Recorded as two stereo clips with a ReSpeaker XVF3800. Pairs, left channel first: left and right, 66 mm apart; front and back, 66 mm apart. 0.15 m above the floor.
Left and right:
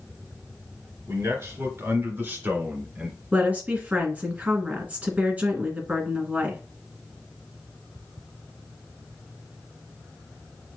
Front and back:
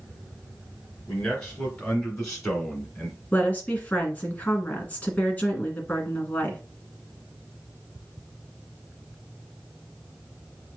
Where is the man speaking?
80° right, 2.5 m; by 3.2 s 90° right, 1.6 m.